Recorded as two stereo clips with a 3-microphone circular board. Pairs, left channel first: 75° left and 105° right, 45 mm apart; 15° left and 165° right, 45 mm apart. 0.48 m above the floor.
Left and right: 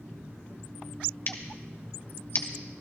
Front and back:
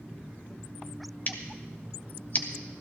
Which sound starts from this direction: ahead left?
Scissors, at 1.3 s.